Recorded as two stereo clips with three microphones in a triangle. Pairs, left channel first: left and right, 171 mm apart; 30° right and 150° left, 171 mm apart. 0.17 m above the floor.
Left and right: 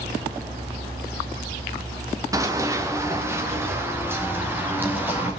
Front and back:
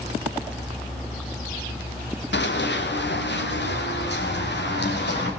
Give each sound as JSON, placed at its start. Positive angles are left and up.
{"t": 2.3, "sound": "running footsteps", "azimuth_deg": -20, "distance_m": 1.8}